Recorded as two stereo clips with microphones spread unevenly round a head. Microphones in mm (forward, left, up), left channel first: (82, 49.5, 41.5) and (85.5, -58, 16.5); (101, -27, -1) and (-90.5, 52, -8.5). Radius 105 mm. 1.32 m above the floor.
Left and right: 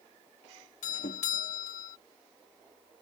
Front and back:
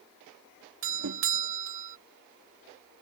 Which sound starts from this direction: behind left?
A doorbell, at 0.8 s.